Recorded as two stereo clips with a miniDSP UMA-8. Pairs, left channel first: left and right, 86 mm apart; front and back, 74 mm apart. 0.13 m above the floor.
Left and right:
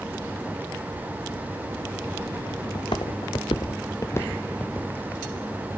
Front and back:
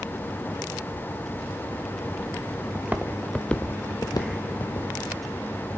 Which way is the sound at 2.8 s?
115° left.